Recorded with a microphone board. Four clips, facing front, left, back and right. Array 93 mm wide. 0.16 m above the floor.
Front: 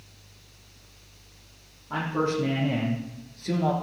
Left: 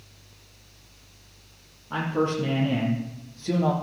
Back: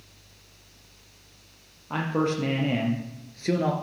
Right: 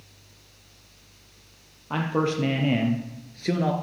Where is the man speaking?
115° right, 4.5 m; by 3.7 s 130° right, 2.5 m.